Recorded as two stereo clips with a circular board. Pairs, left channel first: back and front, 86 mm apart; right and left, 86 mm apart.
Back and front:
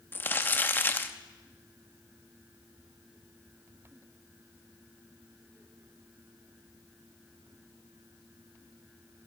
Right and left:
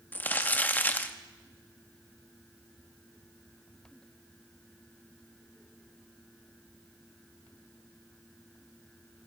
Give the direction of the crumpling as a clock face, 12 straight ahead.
5 o'clock.